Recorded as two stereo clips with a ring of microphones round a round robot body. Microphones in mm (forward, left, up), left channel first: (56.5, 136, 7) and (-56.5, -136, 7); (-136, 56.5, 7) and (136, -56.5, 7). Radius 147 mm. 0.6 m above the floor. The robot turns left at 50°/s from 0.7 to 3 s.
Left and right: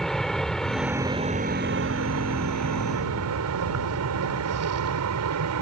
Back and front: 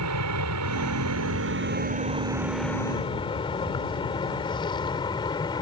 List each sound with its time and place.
0.0 s an aircraft: 20° right; by 5.6 s 130° right